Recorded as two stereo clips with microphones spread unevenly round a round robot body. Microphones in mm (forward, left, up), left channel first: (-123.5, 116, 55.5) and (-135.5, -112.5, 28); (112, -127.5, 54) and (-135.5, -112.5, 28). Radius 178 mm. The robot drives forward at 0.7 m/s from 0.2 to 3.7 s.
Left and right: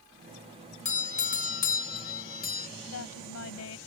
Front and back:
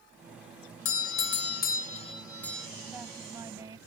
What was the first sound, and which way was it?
A doorbell, 25° left.